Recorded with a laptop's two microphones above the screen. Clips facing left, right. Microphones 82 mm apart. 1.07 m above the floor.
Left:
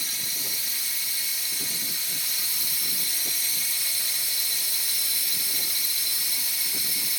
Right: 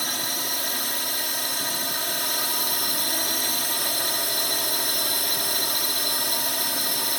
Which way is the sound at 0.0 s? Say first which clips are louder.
Right 9 dB; 65° right (ahead or behind).